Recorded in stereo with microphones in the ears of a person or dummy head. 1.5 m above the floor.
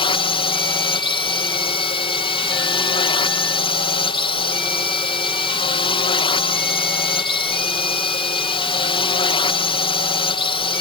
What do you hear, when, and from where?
0.0 s a drone: 30° left (ahead or behind)